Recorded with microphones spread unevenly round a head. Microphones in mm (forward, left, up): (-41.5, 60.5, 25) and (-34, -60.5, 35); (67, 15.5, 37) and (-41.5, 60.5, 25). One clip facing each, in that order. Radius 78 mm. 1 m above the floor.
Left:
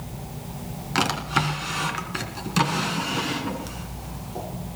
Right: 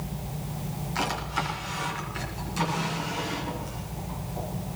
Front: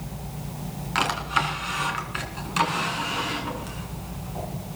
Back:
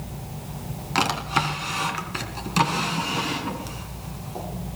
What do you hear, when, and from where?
0.9 s a drawer: 105° left, 3.5 m